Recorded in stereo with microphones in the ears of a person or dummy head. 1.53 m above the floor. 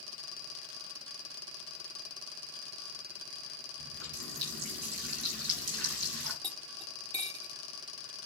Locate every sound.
3.8 s a running tap: 60° right (ahead or behind), 6.5 m
6.4 s cutlery clinking: 20° right (ahead or behind), 0.9 m